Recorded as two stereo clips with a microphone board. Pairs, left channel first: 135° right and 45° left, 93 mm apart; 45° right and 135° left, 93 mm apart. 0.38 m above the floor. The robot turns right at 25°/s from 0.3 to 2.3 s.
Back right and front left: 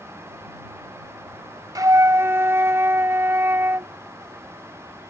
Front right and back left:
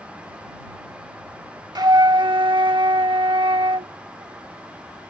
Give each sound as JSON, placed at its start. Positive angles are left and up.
{"t": 1.8, "sound": "a flute", "azimuth_deg": 95}